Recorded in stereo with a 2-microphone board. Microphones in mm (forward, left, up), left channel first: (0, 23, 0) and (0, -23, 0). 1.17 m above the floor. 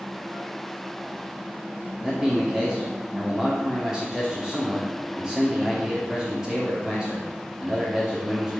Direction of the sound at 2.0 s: 5° right (ahead or behind).